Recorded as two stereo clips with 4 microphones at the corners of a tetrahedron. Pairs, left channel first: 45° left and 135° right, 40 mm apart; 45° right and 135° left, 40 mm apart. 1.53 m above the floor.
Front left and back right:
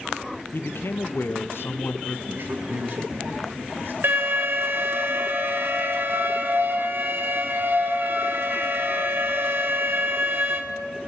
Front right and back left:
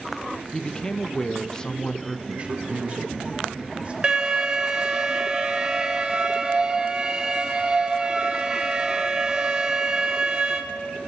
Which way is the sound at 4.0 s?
160° right.